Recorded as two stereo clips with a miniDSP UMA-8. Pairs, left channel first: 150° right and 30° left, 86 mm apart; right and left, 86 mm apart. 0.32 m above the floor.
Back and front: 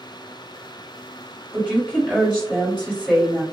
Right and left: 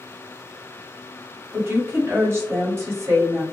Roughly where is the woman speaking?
Left.